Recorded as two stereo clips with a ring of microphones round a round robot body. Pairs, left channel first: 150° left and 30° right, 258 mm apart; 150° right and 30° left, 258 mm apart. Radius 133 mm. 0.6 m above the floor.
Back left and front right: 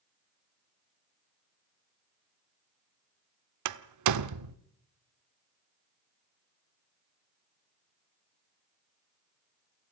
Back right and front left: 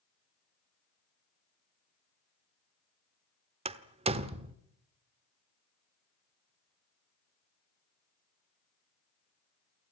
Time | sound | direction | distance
3.6 | a door slam | 40° right | 1.1 m